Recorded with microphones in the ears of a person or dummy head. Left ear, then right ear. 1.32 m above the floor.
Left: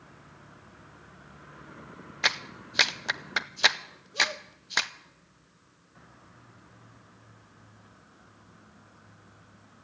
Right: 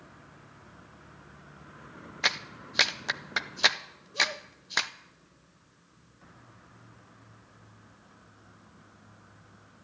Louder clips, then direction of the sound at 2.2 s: Left 1 dB; 5° left (ahead or behind).